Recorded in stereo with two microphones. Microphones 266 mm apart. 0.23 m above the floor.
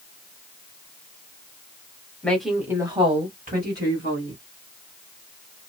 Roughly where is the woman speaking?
Centre.